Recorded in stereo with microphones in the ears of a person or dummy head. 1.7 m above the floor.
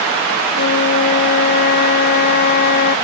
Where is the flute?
50° left (ahead or behind).